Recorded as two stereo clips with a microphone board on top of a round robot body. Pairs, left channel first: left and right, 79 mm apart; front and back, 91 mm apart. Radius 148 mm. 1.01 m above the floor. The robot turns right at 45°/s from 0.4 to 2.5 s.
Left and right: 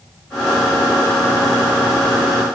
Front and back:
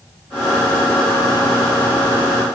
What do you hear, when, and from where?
Only background noise.